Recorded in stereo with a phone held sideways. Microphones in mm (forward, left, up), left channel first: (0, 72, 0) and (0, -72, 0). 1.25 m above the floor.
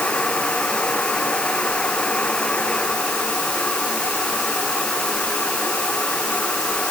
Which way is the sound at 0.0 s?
5° left (ahead or behind).